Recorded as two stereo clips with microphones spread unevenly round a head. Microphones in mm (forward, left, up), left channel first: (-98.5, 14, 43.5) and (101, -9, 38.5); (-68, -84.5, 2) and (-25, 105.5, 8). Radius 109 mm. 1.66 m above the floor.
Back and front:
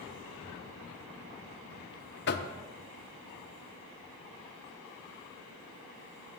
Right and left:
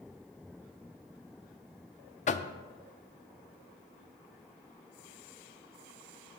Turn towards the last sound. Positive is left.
turn(degrees=-155)